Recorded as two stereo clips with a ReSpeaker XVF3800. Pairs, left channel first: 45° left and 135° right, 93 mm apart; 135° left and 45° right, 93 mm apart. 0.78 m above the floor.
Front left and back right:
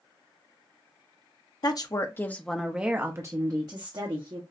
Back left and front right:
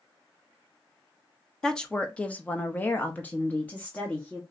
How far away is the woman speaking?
About 0.8 m.